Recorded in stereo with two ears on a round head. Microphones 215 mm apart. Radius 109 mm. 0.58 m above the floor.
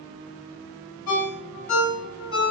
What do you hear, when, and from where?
1.1 s a ringtone: 65° left (ahead or behind), 1.4 m